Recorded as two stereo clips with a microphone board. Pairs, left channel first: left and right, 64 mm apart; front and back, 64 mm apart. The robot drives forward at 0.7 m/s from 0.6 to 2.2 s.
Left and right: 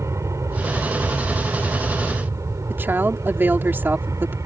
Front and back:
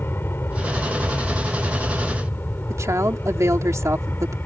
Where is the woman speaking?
145° right.